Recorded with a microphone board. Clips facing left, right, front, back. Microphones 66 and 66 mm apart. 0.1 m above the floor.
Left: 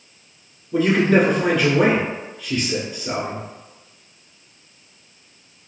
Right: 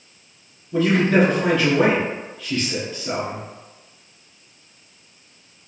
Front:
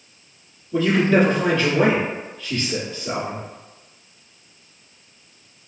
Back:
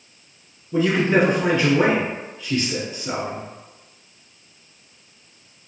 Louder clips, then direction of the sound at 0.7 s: Left 1 dB, front 1 dB; 150° left.